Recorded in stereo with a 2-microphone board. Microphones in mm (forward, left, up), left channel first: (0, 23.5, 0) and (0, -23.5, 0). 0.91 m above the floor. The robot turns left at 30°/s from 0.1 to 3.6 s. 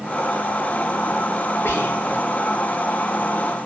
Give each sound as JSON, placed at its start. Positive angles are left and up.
{"t": 1.6, "sound": "whispering", "side_deg": 55, "distance_m": 0.8}